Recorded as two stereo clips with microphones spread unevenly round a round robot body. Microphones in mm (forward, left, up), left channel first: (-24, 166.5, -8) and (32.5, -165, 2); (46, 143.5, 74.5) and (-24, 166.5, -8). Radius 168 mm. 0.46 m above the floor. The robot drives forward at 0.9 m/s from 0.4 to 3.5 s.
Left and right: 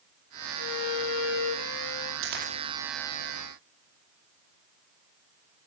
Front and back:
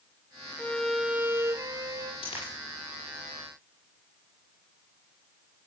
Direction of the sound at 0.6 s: 70° left.